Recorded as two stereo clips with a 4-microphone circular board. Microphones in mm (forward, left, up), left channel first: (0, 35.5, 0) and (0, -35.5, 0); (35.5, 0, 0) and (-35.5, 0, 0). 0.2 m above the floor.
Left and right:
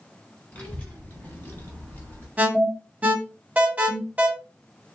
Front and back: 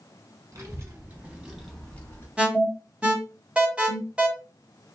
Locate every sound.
0.5 s a child speaking: 150° left, 1.4 m; by 2.3 s 35° left, 1.0 m
2.4 s an alarm: 125° right, 0.8 m